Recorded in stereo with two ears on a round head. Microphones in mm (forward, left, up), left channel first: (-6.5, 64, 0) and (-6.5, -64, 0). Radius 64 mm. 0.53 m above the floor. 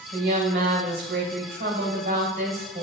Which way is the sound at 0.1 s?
70° right (ahead or behind).